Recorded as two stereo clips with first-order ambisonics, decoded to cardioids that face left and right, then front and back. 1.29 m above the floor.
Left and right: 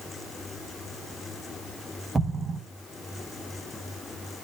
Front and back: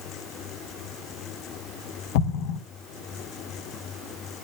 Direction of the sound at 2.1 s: 10° right.